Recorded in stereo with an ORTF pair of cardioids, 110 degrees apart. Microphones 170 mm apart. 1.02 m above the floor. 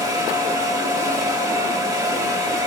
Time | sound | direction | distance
0.0 | a fan | 25° right | 3 m